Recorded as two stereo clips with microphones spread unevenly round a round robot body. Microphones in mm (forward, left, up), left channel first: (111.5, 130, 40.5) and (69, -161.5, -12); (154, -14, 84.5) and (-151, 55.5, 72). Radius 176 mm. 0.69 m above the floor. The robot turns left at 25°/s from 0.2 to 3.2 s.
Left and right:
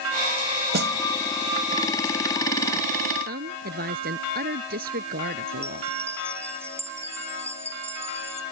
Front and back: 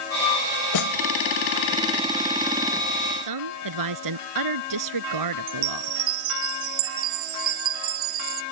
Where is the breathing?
No breathing in this recording.